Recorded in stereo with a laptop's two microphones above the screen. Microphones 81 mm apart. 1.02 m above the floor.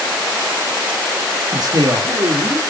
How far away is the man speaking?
About 1.8 m.